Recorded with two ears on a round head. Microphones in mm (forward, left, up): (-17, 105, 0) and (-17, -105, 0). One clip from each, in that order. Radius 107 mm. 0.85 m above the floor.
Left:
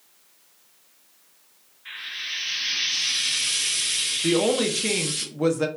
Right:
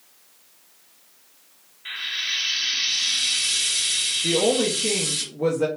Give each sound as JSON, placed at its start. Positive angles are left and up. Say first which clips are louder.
{"t": 1.9, "sound": "frying", "louder": "right 5 dB", "side_deg": -45, "distance_m": 1.8}
{"t": 4.2, "sound": "a woman speaking", "louder": "even", "side_deg": 40, "distance_m": 0.7}